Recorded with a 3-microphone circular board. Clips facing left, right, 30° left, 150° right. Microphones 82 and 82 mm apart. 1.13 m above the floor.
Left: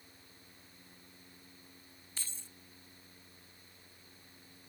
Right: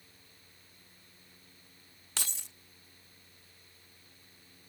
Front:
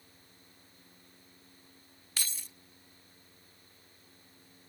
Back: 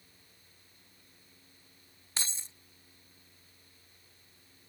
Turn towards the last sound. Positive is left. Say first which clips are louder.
# right 9 dB, back 1 dB
turn(degrees=-85)